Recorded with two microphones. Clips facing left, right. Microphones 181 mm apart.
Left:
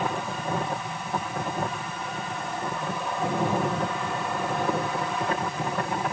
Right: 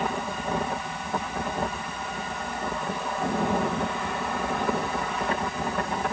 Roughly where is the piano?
No piano in this recording.